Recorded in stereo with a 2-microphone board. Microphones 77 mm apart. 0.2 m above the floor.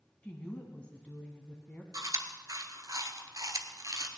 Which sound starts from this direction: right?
Chewing, at 1.9 s.